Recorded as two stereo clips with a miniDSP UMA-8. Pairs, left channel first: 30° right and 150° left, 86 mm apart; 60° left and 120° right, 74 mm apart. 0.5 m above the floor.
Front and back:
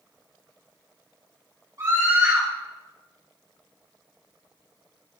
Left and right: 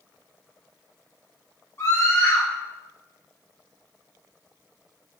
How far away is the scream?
About 3 m.